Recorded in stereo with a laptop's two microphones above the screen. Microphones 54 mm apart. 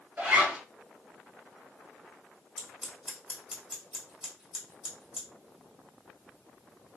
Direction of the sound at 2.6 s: 15° right (ahead or behind).